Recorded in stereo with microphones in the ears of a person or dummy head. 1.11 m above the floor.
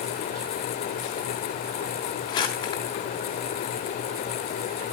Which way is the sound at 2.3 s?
25° left (ahead or behind).